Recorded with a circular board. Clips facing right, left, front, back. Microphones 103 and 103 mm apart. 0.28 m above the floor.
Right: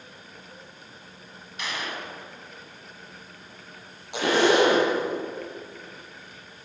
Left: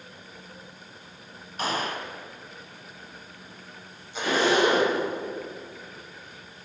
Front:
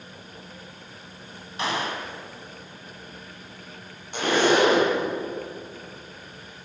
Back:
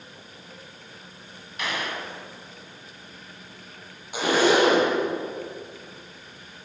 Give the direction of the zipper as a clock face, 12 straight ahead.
3 o'clock.